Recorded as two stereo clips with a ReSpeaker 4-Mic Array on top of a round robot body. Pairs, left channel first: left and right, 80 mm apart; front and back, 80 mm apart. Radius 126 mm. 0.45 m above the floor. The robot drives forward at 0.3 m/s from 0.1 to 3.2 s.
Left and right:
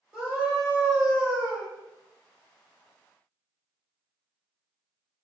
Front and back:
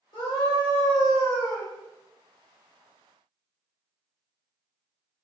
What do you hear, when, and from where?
0.1 s a scream: 10° right, 1.6 m; by 1.7 s 15° right, 1.3 m